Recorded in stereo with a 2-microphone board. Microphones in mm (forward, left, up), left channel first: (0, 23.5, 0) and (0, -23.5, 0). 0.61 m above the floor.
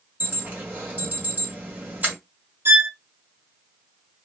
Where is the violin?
50° right (ahead or behind), 0.7 m.